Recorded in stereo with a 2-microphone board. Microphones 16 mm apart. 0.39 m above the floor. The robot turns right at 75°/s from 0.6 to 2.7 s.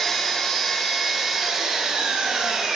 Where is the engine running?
150° left, 1.0 m; by 2.8 s 55° right, 1.0 m.